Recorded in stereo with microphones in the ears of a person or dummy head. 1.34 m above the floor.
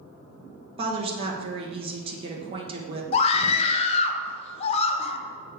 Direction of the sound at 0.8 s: 30° right (ahead or behind).